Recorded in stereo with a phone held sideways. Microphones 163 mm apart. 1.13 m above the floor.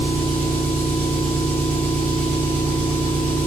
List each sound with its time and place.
0.0 s an engine running: 50° right (ahead or behind), 6.5 m